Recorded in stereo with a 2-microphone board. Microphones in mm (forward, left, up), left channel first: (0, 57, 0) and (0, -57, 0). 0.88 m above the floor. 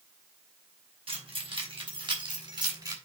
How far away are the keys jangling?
About 4.5 m.